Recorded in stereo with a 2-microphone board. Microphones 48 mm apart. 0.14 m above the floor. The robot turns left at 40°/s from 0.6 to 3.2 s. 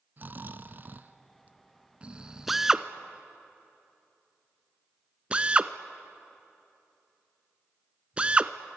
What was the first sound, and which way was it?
Snoring, 85° right.